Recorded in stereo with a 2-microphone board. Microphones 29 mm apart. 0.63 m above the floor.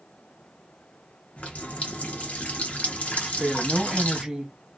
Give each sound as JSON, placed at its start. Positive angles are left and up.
{"t": 1.4, "sound": "a running tap", "side_deg": 55, "distance_m": 0.9}
{"t": 3.2, "sound": "a woman speaking", "side_deg": -20, "distance_m": 0.9}